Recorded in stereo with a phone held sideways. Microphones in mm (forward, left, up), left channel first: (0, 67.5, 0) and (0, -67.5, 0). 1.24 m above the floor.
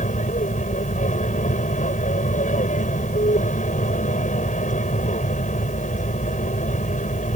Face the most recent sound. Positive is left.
turn(degrees=65)  # may be behind; listen again after turning